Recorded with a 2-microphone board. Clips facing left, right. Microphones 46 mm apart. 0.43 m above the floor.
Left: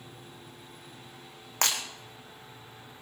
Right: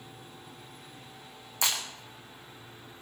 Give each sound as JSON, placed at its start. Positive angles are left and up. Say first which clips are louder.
{"t": 1.6, "sound": "breaking glass", "louder": "left 1 dB", "side_deg": 55, "distance_m": 4.0}